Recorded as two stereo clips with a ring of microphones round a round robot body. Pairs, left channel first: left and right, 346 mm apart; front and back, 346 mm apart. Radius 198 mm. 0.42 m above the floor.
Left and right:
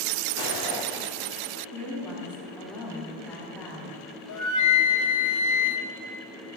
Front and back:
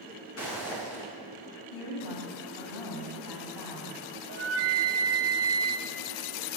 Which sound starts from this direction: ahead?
A woman speaking, at 1.7 s.